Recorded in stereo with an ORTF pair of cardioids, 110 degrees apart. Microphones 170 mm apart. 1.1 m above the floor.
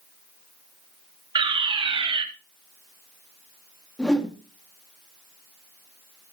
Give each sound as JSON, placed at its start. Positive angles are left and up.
{"t": 1.4, "sound": "a fire alarm", "azimuth_deg": -30, "distance_m": 3.0}
{"t": 4.0, "sound": "a whoosh", "azimuth_deg": 5, "distance_m": 2.5}